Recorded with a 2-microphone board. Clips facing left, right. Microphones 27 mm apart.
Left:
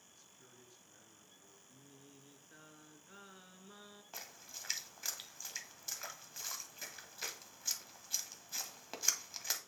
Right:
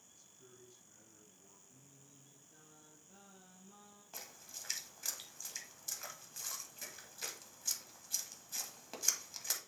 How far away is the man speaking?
About 3 m.